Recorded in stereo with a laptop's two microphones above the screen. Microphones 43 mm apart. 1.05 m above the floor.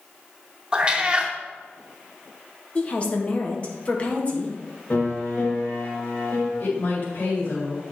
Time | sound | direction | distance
0.7 | a cat meowing | 20° right (ahead or behind) | 0.6 m
2.8 | a woman speaking | 30° left (ahead or behind) | 1.4 m
4.9 | a piano | 40° left (ahead or behind) | 2 m
6.6 | a woman speaking | 45° left (ahead or behind) | 1.7 m